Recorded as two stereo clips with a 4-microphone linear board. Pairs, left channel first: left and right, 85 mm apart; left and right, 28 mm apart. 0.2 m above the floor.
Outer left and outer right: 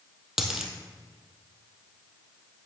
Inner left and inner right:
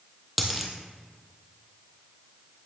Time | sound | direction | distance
0.4 | a dropped coin | 5° right (ahead or behind) | 1.6 m